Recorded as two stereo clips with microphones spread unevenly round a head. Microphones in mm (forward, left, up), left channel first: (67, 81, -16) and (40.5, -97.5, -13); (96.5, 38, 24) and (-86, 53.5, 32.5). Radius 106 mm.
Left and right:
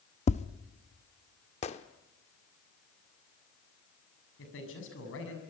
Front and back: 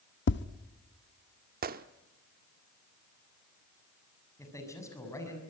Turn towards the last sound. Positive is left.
turn(degrees=70)